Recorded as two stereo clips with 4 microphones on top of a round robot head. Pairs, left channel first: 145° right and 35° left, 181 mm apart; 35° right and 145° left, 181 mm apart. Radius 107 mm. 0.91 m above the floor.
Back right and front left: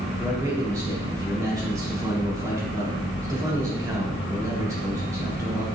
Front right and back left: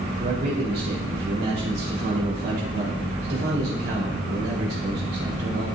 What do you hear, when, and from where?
0.2 s a man speaking: 110° left, 3.5 m